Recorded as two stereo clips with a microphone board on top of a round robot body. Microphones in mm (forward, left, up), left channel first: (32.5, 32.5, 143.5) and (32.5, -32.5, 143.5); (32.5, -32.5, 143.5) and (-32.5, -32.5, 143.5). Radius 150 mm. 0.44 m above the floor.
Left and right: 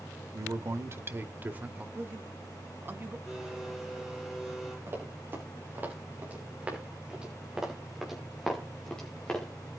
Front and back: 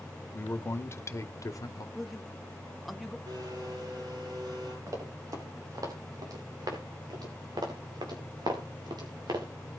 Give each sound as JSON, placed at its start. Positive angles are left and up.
{"t": 0.3, "sound": "a man speaking", "azimuth_deg": -55, "distance_m": 2.0}
{"t": 1.9, "sound": "a man speaking", "azimuth_deg": -90, "distance_m": 1.3}
{"t": 3.3, "sound": "a blender", "azimuth_deg": 180, "distance_m": 8.5}
{"t": 4.9, "sound": "running footsteps", "azimuth_deg": -145, "distance_m": 5.5}